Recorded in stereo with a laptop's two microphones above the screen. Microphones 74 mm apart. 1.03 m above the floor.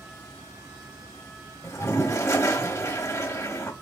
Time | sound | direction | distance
1.6 | a toilet flushing | 45° left (ahead or behind) | 1.2 m